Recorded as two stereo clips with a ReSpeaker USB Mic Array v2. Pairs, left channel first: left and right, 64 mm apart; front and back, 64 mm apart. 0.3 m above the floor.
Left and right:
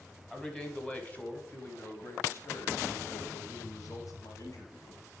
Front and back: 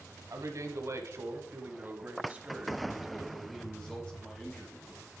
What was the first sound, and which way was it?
A man speaking, 165° left.